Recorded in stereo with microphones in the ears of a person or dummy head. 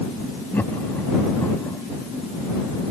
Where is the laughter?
5° left (ahead or behind).